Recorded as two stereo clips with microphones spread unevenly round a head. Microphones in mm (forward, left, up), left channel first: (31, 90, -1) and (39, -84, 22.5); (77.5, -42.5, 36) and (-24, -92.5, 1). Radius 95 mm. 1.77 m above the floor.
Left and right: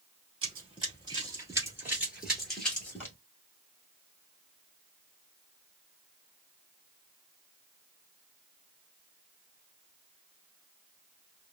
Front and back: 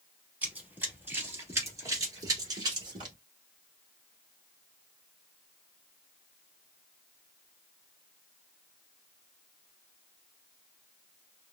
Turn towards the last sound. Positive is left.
turn(degrees=165)